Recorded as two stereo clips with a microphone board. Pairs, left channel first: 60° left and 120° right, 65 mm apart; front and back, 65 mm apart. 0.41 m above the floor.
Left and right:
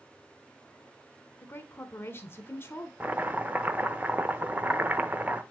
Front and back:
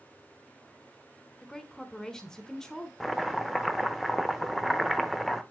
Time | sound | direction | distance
1.4 | a woman speaking | 75° left | 1.5 m
3.0 | chopping | 90° right | 0.7 m